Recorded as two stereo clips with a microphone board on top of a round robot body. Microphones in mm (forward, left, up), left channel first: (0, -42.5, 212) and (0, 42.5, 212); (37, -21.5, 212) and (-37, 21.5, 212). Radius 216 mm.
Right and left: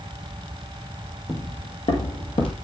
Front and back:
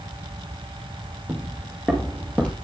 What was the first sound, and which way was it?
Footsteps, 140° right.